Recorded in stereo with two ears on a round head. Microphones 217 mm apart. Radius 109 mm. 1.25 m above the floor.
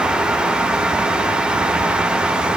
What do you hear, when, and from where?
Only background noise.